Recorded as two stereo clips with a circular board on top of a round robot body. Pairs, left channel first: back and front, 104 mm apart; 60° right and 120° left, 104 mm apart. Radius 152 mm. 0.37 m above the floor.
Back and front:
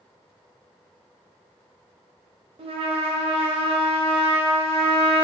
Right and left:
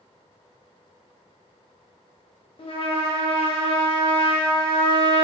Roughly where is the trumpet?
Ahead right.